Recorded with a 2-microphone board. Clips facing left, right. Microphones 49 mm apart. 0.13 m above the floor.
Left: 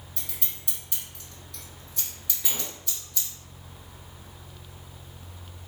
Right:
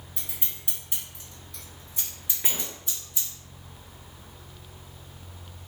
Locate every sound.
0.2 s scissors: 20° right (ahead or behind), 1.7 m
2.4 s a sliding door: 35° right (ahead or behind), 0.7 m